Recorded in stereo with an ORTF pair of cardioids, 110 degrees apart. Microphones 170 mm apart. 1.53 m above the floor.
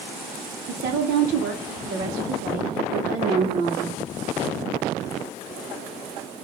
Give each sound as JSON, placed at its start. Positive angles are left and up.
{"t": 0.7, "sound": "a woman speaking", "azimuth_deg": -65, "distance_m": 0.7}